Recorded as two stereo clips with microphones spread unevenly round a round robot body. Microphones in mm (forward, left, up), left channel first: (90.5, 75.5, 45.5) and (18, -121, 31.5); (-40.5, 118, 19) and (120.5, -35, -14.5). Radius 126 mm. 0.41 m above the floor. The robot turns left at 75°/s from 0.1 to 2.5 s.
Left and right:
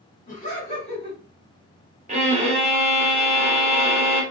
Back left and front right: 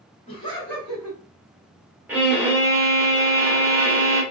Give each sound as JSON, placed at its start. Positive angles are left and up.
{"t": 0.3, "sound": "laughter", "azimuth_deg": 80, "distance_m": 1.6}
{"t": 2.1, "sound": "a violin", "azimuth_deg": -105, "distance_m": 0.8}